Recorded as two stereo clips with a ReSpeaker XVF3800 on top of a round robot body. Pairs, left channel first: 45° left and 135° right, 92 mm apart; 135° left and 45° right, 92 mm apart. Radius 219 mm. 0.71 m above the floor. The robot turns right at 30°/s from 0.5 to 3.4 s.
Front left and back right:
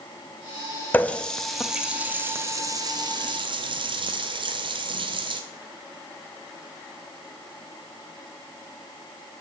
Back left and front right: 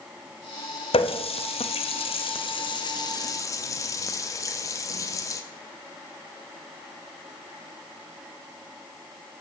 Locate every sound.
0.9 s a running tap: 120° left, 0.6 m; by 5.4 s 170° right, 0.6 m